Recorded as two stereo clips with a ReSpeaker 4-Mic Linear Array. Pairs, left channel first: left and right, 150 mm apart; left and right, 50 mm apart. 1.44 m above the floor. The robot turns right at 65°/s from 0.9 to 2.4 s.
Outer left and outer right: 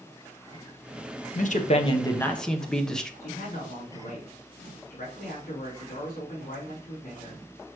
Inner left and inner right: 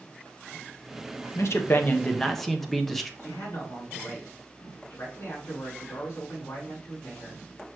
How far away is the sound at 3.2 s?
About 3.5 m.